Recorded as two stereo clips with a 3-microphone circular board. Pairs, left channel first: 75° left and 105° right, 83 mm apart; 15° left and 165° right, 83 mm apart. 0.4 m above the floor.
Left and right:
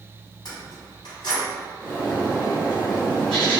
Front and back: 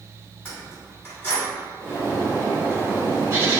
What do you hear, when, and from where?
0.5 s keys jangling: 80° left, 1.8 m
1.8 s a bird: 150° left, 1.6 m